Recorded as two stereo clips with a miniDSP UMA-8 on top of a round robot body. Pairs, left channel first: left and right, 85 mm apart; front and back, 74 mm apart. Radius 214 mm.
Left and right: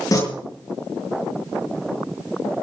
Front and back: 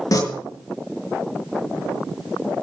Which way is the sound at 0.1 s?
40° left.